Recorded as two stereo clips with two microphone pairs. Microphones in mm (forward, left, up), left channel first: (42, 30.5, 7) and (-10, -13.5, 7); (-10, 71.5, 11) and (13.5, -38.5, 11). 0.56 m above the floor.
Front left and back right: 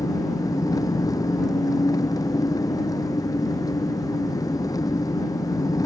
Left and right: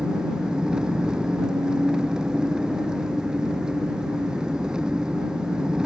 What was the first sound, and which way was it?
An engine running, 5° left.